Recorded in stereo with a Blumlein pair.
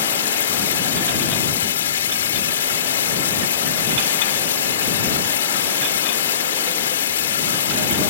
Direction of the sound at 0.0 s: 65° left.